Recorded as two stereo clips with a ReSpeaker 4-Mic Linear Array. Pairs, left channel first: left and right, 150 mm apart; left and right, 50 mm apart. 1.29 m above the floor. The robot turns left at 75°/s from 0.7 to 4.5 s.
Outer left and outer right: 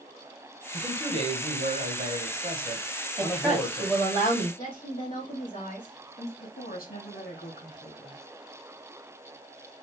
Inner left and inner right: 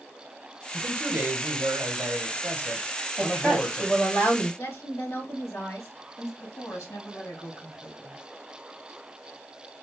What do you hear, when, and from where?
0.7 s a man speaking: 5° right, 1.6 m; by 4.0 s 110° left, 1.6 m
3.2 s a woman speaking: 155° right, 2.5 m; by 4.5 s 110° left, 2.5 m
4.6 s a woman speaking: 70° left (ahead or behind), 2.5 m
6.4 s a woman speaking: 80° left, 2.5 m